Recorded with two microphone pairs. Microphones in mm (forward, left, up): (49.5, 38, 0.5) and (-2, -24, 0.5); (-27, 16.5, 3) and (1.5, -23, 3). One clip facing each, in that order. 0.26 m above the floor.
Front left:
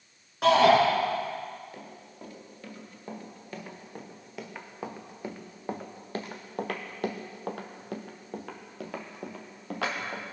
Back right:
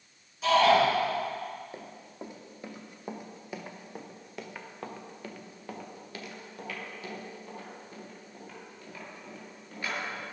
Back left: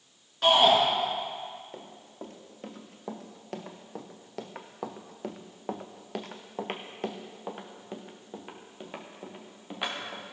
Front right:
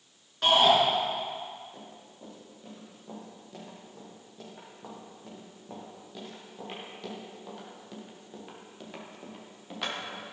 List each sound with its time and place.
0.4 s a shout: 35° left, 3.5 m
1.7 s running footsteps: 170° left, 3 m; by 10.2 s 50° left, 3.5 m